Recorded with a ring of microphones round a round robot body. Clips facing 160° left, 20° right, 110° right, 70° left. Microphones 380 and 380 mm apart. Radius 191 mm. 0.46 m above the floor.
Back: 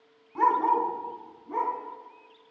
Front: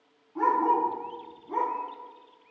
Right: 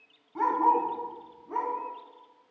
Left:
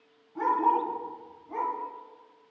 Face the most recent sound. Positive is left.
turn(degrees=-110)